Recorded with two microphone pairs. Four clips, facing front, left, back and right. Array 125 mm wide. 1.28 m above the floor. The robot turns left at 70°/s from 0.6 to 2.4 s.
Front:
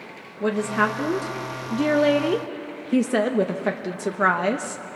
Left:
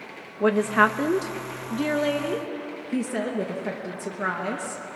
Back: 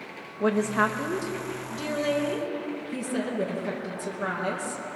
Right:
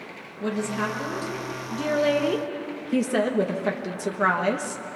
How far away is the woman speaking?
About 1.1 m.